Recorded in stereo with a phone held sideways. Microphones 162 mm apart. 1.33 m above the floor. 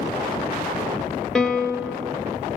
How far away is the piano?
About 0.9 m.